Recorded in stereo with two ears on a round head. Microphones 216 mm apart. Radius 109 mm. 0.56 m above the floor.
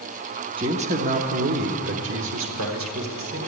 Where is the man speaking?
20° right (ahead or behind), 0.9 m; by 3.4 s 65° right (ahead or behind), 2.0 m.